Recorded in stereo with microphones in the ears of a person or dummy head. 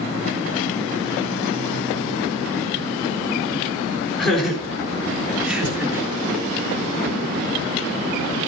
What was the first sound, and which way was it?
Laughter, 5° left (ahead or behind).